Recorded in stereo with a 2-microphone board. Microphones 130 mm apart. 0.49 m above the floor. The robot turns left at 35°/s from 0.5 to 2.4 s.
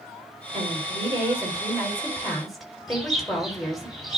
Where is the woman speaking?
115° right, 6 m; by 3.9 s straight behind, 6 m.